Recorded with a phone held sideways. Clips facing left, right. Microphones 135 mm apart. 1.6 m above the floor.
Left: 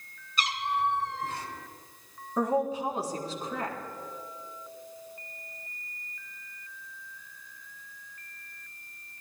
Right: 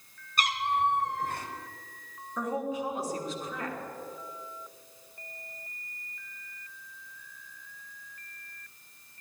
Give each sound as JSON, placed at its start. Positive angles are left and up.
{"t": 0.4, "sound": "a cat meowing", "side_deg": -50, "distance_m": 2.0}
{"t": 2.4, "sound": "a woman speaking", "side_deg": 30, "distance_m": 4.0}